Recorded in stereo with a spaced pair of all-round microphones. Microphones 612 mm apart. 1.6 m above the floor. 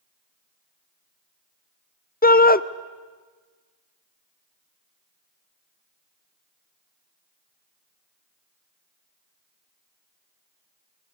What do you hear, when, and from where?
2.2 s a shout: 15° left (ahead or behind), 0.6 m